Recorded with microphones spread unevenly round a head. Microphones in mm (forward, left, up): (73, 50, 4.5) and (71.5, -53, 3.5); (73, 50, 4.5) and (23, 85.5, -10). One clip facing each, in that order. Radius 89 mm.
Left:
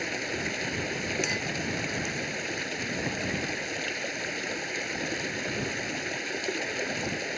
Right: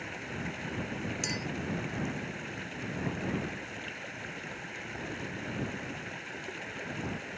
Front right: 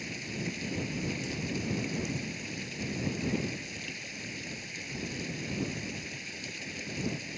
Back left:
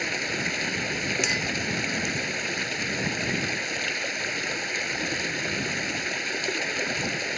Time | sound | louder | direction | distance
0.0 | running water | left 6 dB, back left 9 dB | 125° left | ?
1.2 | a clink | left 4 dB, back left 9 dB | 150° left | ?